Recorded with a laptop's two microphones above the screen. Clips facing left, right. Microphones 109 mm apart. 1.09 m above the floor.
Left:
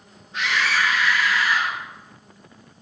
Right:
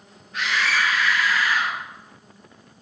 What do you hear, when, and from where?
0.3 s a scream: 25° left (ahead or behind), 5.5 m; by 1.8 s 20° left (ahead or behind), 4.5 m